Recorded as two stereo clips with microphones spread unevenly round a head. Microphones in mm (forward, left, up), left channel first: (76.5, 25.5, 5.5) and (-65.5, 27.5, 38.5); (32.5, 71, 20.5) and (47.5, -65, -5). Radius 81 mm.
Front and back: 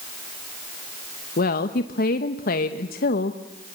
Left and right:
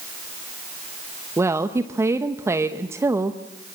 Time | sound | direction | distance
1.4 | a woman speaking | 15° right | 1.1 m